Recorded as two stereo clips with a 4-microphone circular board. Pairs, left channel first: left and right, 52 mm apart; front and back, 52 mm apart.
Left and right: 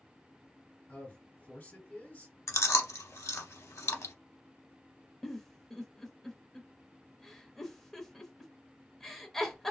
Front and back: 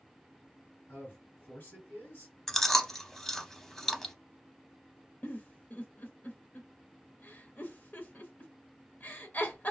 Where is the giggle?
10° left, 0.7 m.